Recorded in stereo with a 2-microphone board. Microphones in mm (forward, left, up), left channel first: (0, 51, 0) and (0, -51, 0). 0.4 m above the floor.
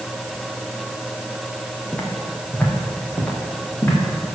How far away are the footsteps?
About 2.5 m.